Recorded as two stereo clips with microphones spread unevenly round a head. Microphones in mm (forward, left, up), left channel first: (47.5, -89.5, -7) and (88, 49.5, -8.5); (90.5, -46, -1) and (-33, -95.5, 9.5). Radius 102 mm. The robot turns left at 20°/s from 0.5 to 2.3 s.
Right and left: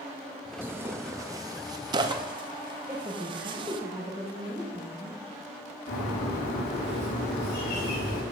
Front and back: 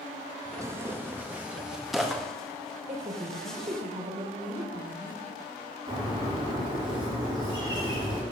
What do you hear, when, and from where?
0.6 s tearing paper: 145° left, 0.5 m; by 3.8 s 110° left, 0.5 m
2.9 s a woman speaking: 155° left, 1.4 m
5.9 s a bird: 110° right, 4 m